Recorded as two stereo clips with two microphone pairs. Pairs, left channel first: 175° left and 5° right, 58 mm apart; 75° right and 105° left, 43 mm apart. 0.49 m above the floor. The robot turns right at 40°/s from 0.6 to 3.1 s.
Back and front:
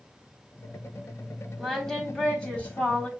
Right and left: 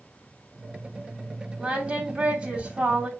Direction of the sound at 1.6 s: 95° left.